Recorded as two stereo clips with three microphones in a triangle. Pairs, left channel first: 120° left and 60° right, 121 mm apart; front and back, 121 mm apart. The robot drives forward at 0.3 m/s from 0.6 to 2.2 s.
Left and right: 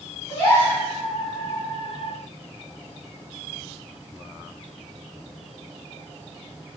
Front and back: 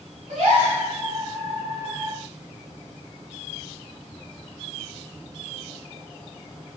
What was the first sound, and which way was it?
A gasp, 175° right.